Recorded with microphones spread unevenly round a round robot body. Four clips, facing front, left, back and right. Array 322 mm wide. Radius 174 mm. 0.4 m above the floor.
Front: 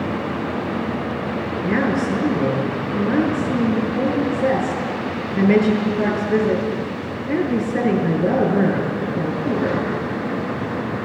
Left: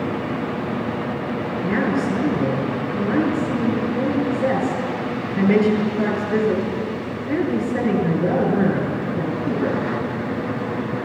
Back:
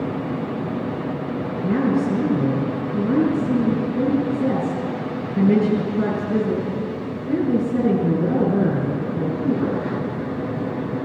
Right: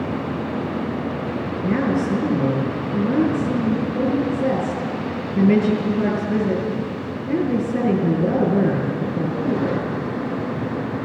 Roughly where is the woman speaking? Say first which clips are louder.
Right 1 dB, even; behind right.